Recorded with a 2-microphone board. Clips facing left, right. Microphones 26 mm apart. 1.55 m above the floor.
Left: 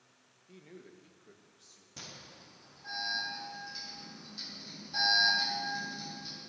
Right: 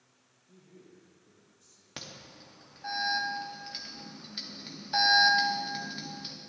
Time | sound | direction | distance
0.5 | a man speaking | 65° left (ahead or behind) | 1.3 m
2.0 | an alarm | 75° right (ahead or behind) | 2 m